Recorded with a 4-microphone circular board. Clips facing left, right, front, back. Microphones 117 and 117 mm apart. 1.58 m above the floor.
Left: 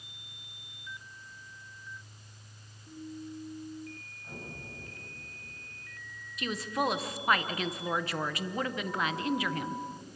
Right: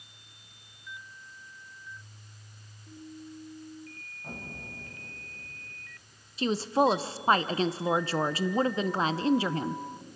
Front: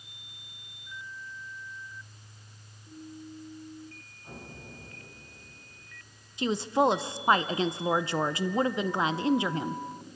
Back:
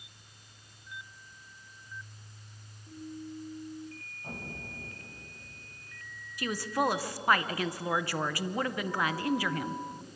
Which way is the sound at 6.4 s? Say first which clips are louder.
Right 7 dB, front 5 dB; 50° right.